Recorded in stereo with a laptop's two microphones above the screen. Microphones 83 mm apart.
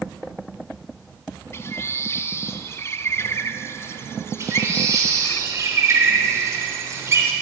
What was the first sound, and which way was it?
A bird, 30° left (ahead or behind).